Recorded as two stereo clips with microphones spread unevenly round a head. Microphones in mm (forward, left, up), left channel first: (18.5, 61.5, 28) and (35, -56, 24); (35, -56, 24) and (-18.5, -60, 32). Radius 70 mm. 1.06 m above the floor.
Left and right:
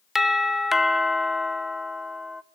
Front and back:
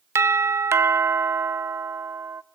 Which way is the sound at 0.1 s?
170° right.